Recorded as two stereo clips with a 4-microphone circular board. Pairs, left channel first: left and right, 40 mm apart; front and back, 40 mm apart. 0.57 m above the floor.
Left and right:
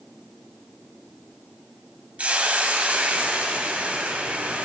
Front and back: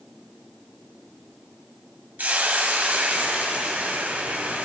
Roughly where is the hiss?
Behind right.